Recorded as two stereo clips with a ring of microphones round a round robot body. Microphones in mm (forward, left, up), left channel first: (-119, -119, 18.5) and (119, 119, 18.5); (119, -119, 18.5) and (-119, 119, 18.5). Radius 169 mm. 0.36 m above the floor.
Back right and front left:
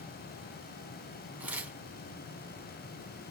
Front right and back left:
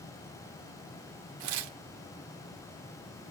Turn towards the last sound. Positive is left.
turn(degrees=130)